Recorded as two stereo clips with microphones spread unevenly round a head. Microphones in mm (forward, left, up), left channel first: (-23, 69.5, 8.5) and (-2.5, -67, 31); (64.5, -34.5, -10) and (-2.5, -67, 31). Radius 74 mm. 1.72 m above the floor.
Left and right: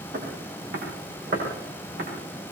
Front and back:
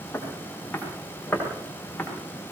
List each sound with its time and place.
0.1 s footsteps: 50° right, 9 m; by 2.1 s 55° right, 10 m